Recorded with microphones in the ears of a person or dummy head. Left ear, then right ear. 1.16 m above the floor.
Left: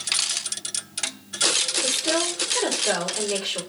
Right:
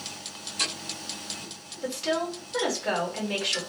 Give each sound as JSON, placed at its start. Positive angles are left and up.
{"t": 1.8, "sound": "a woman speaking", "side_deg": -35, "distance_m": 1.8}